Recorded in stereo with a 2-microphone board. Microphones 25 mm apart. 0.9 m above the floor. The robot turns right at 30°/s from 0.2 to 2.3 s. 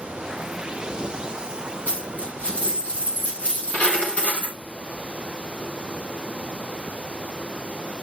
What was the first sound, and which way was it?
A dropped coin, 55° left (ahead or behind).